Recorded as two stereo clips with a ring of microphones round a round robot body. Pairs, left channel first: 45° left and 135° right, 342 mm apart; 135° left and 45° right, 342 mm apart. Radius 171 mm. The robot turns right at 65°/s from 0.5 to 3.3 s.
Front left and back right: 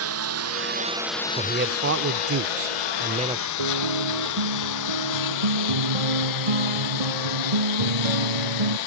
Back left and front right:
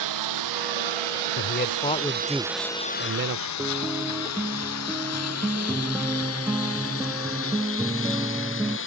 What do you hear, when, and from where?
0.0 s a lawn mower: 85° right; by 8.9 s 75° left
1.4 s a man speaking: 165° left; by 3.5 s 70° right
3.6 s a guitar: 130° right